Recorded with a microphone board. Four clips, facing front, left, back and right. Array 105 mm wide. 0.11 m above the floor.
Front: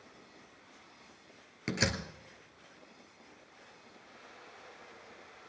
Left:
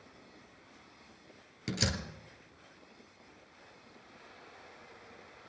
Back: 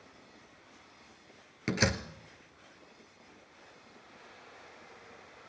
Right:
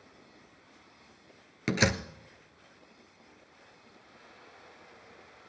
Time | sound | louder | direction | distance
1.7 | a door slam | right 8 dB, back 3 dB | 105° right | 1.1 m